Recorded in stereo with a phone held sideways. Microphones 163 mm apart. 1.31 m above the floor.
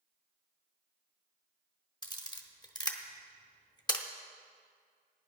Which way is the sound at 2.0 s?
25° left (ahead or behind).